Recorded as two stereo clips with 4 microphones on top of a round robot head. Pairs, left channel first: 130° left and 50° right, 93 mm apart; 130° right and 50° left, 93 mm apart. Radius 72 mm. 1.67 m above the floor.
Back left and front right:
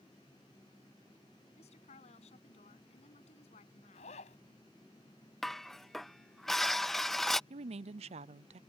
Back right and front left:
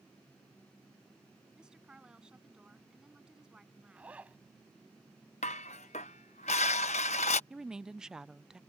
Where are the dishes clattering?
140° right.